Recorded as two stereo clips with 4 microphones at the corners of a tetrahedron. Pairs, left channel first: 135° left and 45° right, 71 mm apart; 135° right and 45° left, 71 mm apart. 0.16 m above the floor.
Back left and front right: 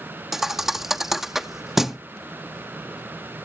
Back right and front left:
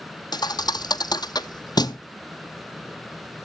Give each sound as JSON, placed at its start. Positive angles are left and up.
{"t": 0.3, "sound": "a thud", "azimuth_deg": -130, "distance_m": 0.6}